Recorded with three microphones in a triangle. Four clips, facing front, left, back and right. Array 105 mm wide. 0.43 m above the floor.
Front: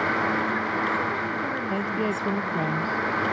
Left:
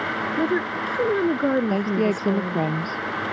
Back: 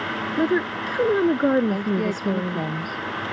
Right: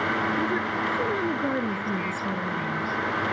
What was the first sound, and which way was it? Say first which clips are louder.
A woman speaking: left 3 dB, back 4 dB; 150° left.